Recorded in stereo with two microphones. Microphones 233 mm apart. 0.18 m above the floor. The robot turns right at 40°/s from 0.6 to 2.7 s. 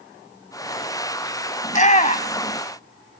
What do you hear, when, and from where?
1.6 s a shout: 30° left (ahead or behind), 1.5 m; by 2.6 s 25° left (ahead or behind), 1.5 m